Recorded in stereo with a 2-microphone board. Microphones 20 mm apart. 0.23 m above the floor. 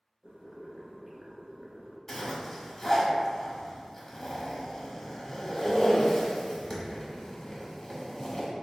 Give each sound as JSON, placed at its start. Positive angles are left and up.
{"t": 0.2, "sound": "boiling", "side_deg": -50, "distance_m": 0.9}
{"t": 2.1, "sound": "a zipper", "side_deg": 30, "distance_m": 0.9}